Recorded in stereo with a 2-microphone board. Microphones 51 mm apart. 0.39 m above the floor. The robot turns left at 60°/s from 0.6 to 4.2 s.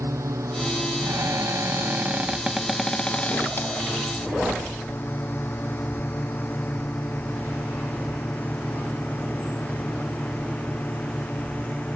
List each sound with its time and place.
0.0 s a drone: 80° right; by 12.0 s 30° left (ahead or behind)
1.0 s a cupboard door: 75° right; by 3.7 s 125° left